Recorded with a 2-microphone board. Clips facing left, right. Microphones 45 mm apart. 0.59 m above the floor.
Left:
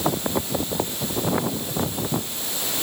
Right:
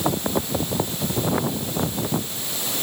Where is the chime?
No chime in this recording.